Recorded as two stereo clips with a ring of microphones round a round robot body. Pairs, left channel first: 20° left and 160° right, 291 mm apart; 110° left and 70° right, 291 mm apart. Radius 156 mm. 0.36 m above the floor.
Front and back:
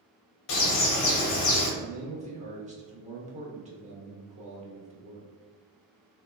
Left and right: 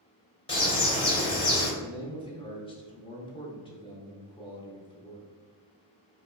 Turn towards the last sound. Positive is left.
turn(degrees=165)